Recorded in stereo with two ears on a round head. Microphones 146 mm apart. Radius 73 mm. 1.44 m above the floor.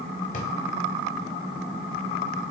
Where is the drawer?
50° left (ahead or behind), 1.7 m.